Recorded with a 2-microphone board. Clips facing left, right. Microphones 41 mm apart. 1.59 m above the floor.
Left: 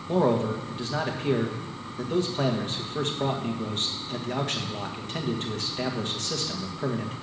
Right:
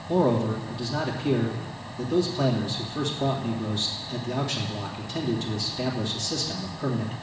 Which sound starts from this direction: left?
A man speaking, at 0.1 s.